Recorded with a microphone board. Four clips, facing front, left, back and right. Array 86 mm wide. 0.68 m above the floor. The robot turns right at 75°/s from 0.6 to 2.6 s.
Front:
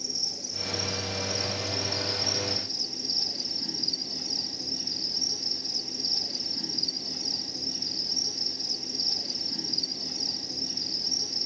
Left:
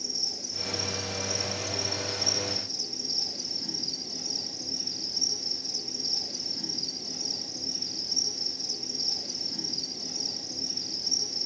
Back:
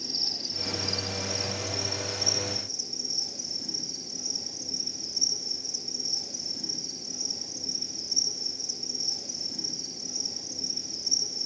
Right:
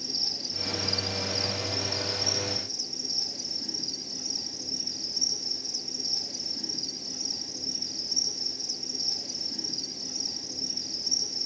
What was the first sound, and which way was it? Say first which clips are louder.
An insect: right 1 dB, back 1 dB; 135° right.